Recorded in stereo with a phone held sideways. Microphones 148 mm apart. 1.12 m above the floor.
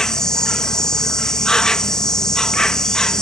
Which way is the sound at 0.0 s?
5° left (ahead or behind).